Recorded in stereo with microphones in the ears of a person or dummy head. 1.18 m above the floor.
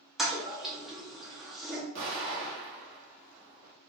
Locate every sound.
0.2 s a toilet flushing: centre (ahead or behind), 0.8 m
1.9 s an explosion: 55° right (ahead or behind), 1.6 m